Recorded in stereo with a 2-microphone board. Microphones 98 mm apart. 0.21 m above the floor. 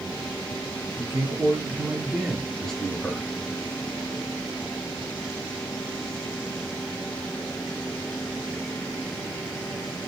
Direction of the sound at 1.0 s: 35° right (ahead or behind).